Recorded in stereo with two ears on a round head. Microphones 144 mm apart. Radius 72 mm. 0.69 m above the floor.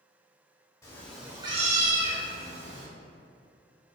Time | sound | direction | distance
0.8 | a cat meowing | 20° left (ahead or behind) | 0.9 m